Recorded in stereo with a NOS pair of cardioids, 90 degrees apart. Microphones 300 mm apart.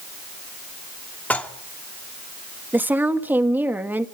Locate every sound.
1.3 s dishes clattering: 5° left, 2.5 m
2.7 s a woman speaking: 5° right, 2 m